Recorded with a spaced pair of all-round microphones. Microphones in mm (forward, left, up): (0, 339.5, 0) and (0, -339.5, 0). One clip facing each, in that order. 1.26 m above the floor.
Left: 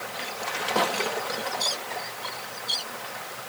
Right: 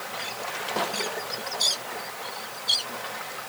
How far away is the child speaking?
No child speaking in this recording.